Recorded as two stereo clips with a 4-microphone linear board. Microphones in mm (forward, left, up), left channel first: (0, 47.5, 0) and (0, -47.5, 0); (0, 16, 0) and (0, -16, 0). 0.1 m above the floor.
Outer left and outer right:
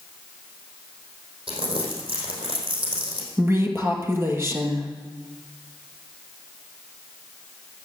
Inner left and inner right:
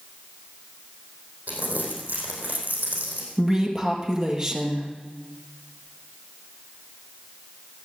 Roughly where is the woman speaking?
Right.